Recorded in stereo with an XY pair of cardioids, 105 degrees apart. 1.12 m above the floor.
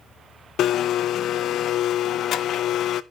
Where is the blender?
70° left, 0.6 m.